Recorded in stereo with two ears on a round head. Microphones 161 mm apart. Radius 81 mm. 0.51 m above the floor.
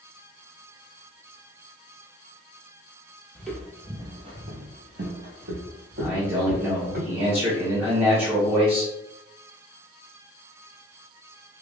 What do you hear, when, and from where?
3.4 s footsteps: 5° left (ahead or behind), 0.9 m; by 7.0 s 65° right (ahead or behind), 1.8 m
6.0 s a man speaking: 5° right (ahead or behind), 1.2 m